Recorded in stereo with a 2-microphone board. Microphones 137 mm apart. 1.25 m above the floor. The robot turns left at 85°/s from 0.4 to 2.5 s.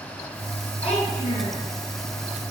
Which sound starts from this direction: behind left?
A child speaking, at 0.8 s.